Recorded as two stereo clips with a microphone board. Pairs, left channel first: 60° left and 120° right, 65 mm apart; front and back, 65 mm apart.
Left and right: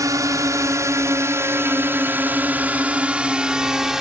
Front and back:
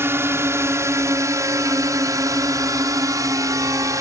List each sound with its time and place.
0.0 s a drone: 135° right; by 4.0 s 160° left